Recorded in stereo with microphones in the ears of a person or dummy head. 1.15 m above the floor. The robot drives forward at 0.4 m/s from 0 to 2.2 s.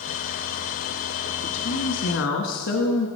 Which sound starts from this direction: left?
A woman speaking, at 1.4 s.